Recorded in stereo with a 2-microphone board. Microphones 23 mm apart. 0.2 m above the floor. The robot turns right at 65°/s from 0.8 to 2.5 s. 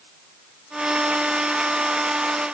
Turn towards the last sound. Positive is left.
No sound to turn to.